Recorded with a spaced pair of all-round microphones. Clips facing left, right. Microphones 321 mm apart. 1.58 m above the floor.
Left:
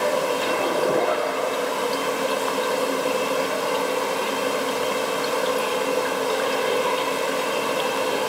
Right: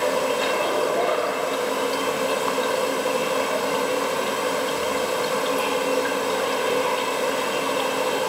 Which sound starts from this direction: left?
A zipper, at 0.4 s.